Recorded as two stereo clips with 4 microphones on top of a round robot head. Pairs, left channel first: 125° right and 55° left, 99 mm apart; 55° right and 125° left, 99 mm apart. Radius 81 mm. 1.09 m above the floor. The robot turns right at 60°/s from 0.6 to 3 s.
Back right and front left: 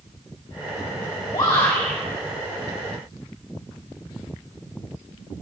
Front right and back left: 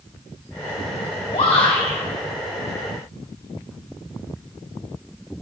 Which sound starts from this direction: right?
A shout, at 1.3 s.